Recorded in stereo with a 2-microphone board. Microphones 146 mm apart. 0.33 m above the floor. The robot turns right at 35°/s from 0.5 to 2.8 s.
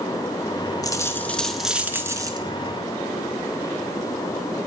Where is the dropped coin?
155° left, 1.0 m; by 2.4 s 150° right, 1.0 m.